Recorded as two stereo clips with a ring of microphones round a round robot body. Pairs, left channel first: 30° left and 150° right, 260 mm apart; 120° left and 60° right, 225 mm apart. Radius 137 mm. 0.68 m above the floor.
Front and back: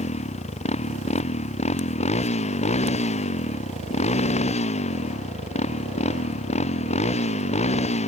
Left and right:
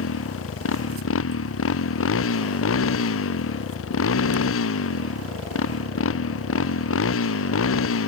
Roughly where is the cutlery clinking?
No cutlery clinking in this recording.